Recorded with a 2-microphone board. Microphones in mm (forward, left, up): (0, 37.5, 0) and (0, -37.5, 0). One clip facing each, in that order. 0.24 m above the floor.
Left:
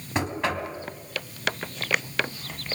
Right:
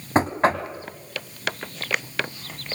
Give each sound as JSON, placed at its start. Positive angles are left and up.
{"t": 0.1, "sound": "knocking", "side_deg": -35, "distance_m": 1.4}